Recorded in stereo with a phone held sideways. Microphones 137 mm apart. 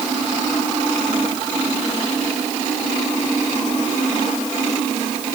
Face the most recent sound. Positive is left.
No sound to turn to.